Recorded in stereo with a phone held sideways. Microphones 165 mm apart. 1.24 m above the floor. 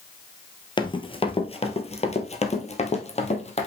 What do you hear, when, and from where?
0.8 s running footsteps: 30° left (ahead or behind), 1.5 m; by 3.7 s 40° left (ahead or behind), 2 m